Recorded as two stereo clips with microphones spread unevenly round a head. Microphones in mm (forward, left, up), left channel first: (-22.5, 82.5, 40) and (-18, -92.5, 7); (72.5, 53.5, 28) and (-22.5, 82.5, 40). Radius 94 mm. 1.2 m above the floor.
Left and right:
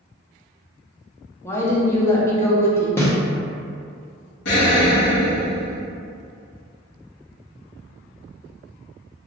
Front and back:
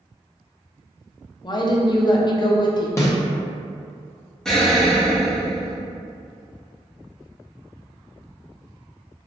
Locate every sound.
1.4 s a woman speaking: 10° left, 0.6 m
3.0 s a snare drum: 40° left, 0.7 m
4.5 s an explosion: 70° left, 0.9 m